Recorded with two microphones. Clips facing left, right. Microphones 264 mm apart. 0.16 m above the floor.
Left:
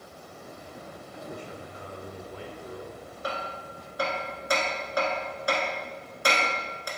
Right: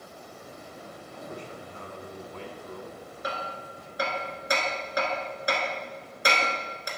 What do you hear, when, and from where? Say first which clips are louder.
1.1 s a man speaking: even; 10° left (ahead or behind), 1.3 m
3.2 s hammering: left 1 dB; 20° right (ahead or behind), 1.2 m